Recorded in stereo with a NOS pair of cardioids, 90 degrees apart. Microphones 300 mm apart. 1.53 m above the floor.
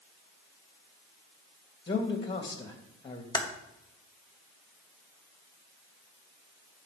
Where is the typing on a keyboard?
10° left, 2 m.